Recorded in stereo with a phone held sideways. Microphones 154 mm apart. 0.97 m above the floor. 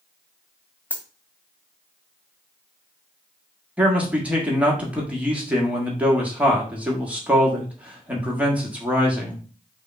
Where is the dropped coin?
10° left (ahead or behind), 0.8 m.